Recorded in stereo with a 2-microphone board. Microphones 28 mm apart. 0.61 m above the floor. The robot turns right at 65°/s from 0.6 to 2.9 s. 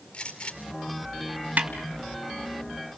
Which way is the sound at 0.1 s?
40° left (ahead or behind).